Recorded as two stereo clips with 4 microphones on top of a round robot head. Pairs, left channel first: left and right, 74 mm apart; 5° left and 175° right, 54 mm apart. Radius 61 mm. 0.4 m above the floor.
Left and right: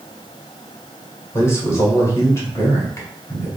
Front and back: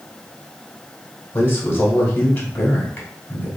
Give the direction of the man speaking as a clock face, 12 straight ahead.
10 o'clock.